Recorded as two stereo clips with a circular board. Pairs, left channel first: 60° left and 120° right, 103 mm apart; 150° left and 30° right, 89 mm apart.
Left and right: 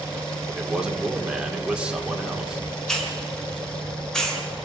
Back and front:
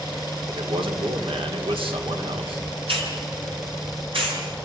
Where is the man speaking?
40° right, 2 m.